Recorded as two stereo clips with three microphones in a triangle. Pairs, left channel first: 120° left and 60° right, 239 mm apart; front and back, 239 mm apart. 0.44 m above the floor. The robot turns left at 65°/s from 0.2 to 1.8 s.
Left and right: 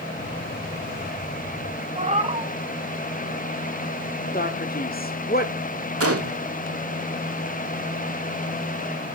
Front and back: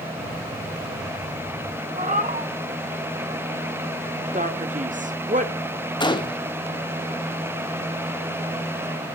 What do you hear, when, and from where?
1.9 s a cat meowing: 125° right, 1.2 m
4.3 s a man speaking: 140° left, 1.5 m
6.0 s a gunshot: 70° right, 1.0 m